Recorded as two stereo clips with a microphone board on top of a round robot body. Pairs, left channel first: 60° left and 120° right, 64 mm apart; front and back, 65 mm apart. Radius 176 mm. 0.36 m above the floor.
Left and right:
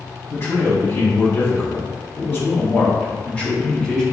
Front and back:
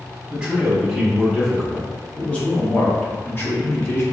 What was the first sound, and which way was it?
A man speaking, 95° left.